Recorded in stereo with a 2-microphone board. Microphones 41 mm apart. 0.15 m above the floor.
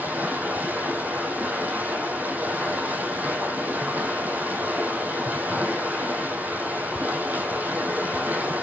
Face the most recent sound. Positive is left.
turn(degrees=-45)  # may be behind; listen again after turning